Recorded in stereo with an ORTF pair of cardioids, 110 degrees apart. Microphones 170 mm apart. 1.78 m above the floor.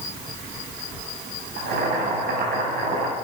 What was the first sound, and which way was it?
Boiling, 70° right.